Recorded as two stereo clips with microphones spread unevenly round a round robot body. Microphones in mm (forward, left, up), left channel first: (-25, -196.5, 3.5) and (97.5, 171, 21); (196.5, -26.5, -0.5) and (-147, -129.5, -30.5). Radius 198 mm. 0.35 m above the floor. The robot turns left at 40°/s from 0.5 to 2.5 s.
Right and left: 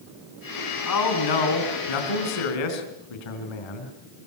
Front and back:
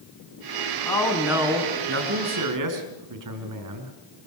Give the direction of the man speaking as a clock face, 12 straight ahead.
2 o'clock.